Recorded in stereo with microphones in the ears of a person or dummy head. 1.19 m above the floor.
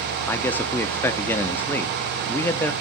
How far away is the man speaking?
About 0.9 m.